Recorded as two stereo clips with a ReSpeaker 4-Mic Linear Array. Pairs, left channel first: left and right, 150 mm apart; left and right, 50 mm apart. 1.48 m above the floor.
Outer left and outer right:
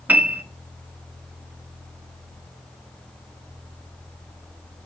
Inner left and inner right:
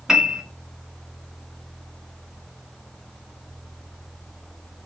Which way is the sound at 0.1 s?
10° right (ahead or behind).